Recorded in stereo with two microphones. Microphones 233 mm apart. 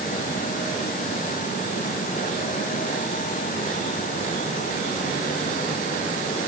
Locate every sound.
Only background noise.